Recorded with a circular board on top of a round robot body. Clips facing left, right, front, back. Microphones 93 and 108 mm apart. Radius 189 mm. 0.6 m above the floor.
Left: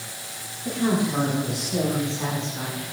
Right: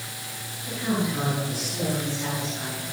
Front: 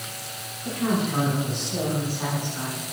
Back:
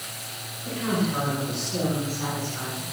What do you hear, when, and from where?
0.7 s a woman speaking: 70° left, 8 m; by 2.8 s 75° left, 10.5 m